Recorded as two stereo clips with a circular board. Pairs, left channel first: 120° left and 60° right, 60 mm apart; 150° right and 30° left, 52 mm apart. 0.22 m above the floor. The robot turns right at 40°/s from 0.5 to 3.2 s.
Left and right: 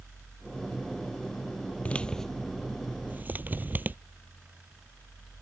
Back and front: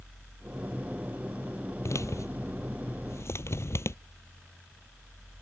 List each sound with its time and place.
1.9 s a man speaking: 170° right; by 4.0 s 120° right